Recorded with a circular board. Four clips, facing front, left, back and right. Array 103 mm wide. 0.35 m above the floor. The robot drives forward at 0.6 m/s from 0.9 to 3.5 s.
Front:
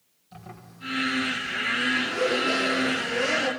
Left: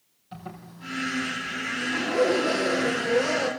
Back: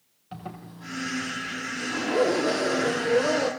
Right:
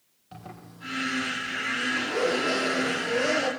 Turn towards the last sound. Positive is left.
turn(degrees=-170)